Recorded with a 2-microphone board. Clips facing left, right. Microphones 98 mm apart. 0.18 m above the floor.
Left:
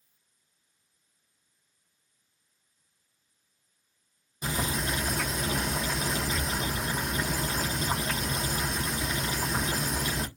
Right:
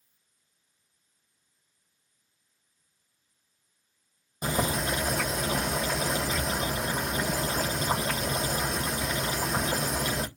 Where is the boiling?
50° right (ahead or behind), 1.6 m.